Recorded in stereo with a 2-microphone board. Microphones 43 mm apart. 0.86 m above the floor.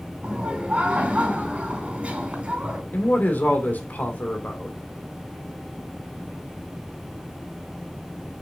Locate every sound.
0.2 s laughter: 30° right (ahead or behind), 4.5 m
2.9 s a man speaking: 45° left (ahead or behind), 2 m